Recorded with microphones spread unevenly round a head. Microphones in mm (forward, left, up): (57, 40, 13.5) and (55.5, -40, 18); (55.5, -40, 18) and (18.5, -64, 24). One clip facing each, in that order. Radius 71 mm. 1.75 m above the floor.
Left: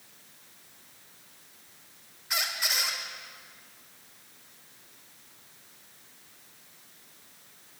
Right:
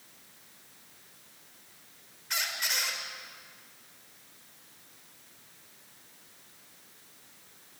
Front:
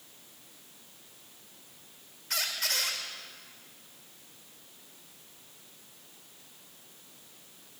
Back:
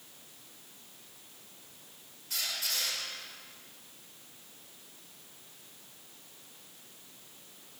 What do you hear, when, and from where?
2.3 s a squeak: 5° left, 5.5 m